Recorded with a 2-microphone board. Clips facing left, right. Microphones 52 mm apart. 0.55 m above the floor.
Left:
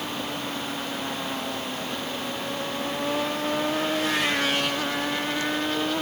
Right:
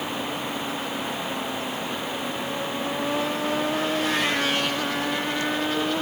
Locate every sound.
Only background noise.